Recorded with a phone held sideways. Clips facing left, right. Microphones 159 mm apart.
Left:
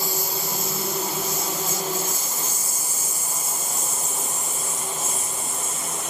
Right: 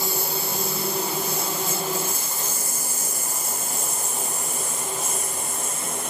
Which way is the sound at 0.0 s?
60° right (ahead or behind).